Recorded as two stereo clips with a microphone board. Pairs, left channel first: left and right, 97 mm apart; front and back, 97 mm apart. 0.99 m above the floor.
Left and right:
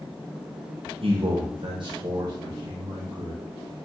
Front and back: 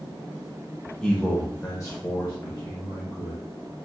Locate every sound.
1.0 s a man speaking: 80° right, 0.7 m; by 3.4 s 35° right, 1.7 m